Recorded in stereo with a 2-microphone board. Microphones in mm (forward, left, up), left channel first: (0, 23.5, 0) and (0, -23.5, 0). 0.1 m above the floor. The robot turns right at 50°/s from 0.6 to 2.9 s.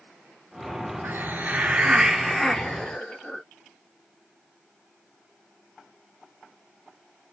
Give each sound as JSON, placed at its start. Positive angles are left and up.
{"t": 1.0, "sound": "a hiss", "azimuth_deg": -65, "distance_m": 0.5}